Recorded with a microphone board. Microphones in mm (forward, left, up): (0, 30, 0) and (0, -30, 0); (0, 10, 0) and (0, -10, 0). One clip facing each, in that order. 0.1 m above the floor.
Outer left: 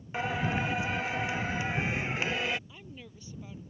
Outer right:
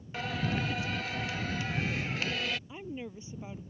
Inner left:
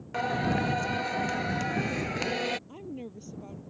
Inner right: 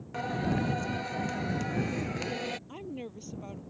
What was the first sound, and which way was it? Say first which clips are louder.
Singing: outer left 3 dB, inner left 3 dB; 20° left (ahead or behind).